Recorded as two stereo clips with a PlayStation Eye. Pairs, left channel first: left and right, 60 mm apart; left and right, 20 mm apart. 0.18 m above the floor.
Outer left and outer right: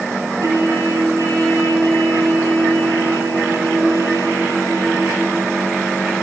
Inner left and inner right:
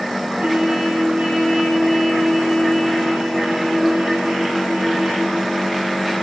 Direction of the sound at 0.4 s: 75° right (ahead or behind).